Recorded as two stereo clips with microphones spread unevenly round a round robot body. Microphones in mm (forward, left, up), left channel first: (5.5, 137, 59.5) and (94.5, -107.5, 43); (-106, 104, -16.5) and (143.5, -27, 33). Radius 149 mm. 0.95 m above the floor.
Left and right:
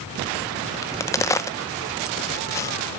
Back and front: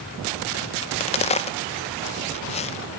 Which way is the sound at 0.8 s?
170° right.